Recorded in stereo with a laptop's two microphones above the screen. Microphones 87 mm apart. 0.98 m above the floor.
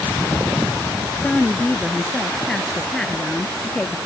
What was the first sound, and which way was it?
A woman speaking, 5° left (ahead or behind).